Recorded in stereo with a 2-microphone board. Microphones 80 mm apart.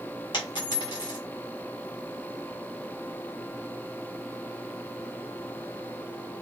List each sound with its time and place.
0.3 s a dropped coin: 75° left (ahead or behind), 1.2 m